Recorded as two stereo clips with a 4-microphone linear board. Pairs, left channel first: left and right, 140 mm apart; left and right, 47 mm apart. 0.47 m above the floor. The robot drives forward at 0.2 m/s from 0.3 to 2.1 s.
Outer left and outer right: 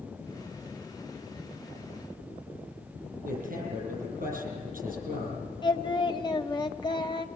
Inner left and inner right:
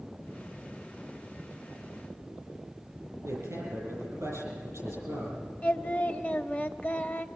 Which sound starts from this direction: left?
Singing, at 5.6 s.